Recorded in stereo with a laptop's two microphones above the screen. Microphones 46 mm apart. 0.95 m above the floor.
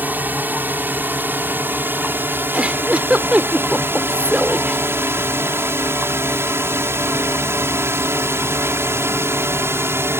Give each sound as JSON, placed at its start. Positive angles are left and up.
{"t": 0.0, "sound": "a drone", "side_deg": -40}
{"t": 2.5, "sound": "a giggle", "side_deg": -25}